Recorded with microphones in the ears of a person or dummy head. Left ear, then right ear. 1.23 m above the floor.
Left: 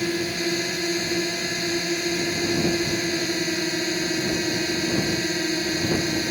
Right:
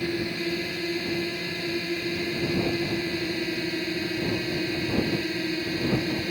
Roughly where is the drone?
Left.